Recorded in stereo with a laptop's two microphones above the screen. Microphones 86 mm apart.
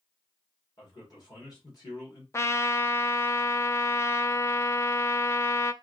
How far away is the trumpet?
About 0.5 m.